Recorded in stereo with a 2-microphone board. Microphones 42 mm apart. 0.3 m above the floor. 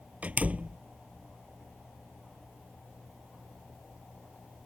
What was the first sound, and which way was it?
A door slam, 35° right (ahead or behind).